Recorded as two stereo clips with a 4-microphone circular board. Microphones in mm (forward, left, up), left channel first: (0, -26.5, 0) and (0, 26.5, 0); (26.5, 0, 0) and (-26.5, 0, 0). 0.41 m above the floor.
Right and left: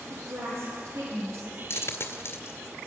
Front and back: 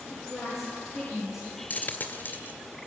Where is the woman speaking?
90° left, 10 m; by 1.4 s 95° left, 11 m.